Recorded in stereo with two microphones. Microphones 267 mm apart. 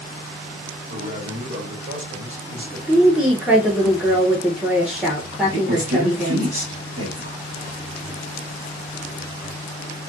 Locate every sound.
0.9 s a man speaking: 50° right (ahead or behind), 1.5 m
2.9 s a woman speaking: 5° right (ahead or behind), 0.6 m
5.5 s a woman speaking: 55° right (ahead or behind), 1.7 m